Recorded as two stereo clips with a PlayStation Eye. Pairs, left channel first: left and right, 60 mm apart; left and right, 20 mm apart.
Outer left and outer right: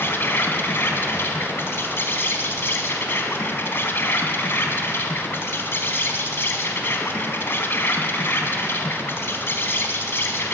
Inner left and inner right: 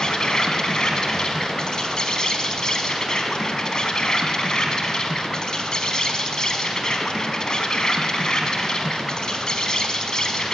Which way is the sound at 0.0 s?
40° left (ahead or behind).